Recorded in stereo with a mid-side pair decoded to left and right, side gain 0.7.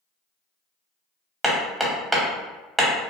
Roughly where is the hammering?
Ahead.